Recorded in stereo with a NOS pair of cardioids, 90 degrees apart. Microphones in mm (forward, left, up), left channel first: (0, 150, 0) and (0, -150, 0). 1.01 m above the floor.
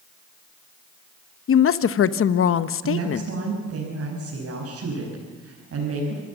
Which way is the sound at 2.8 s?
50° right.